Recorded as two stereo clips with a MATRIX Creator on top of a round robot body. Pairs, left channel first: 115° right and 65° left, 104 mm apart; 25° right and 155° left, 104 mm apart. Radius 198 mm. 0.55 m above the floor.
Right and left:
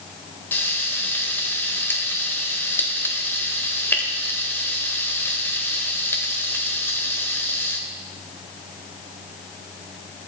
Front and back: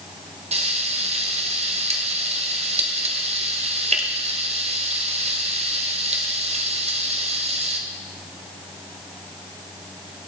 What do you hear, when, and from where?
0.5 s frying: 175° left, 1.3 m